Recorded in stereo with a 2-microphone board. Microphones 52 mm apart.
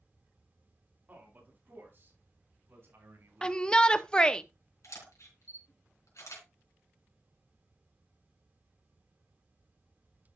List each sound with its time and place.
1.1 s a man speaking: 35° right (ahead or behind), 5.5 m; by 4.4 s 60° right (ahead or behind), 6.5 m
3.4 s a shout: 20° left (ahead or behind), 0.5 m
4.8 s a camera shutter: 80° left, 4 m